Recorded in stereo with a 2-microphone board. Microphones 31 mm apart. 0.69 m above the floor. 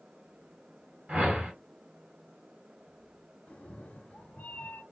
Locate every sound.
1.1 s a whoosh: 50° right (ahead or behind), 1.5 m
3.5 s a cat meowing: 50° left (ahead or behind), 0.5 m